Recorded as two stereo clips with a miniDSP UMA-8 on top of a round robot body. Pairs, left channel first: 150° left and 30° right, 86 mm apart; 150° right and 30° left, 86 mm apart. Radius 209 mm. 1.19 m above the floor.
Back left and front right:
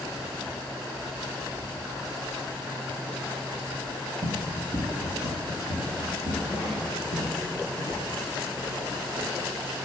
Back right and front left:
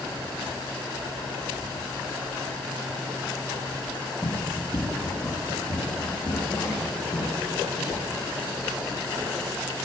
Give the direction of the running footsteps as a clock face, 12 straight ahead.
3 o'clock.